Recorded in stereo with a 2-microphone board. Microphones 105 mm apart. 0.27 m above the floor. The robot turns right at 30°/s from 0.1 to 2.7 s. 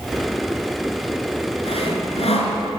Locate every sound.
1.6 s sawing: 70° left (ahead or behind), 2 m